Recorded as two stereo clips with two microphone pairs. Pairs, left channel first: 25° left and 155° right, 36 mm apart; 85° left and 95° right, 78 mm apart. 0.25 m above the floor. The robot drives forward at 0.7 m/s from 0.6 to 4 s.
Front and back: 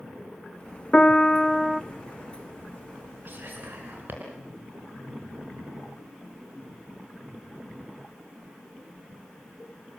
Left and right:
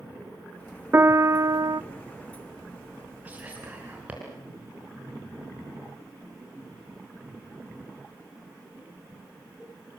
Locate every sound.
0.9 s a piano: 40° right, 0.9 m; by 1.8 s 80° right, 0.6 m
3.2 s whispering: 165° right, 3.5 m